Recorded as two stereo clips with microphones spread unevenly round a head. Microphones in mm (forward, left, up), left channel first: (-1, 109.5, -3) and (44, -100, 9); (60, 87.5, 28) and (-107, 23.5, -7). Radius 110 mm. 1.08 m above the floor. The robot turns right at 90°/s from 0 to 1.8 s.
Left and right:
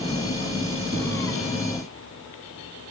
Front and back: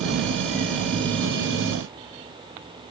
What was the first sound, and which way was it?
Only background noise.